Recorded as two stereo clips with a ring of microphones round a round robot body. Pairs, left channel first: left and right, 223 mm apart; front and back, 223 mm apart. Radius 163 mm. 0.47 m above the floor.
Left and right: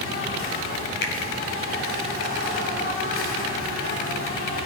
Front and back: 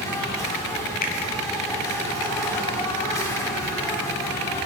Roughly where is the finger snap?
Ahead left.